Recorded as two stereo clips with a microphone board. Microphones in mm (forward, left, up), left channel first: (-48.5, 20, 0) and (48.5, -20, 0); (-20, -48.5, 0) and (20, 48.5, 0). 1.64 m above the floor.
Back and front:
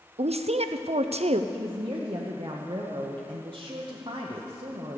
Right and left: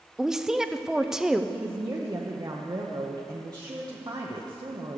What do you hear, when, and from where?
0.2 s a woman speaking: 20° right, 0.5 m
1.5 s a woman speaking: 20° left, 0.9 m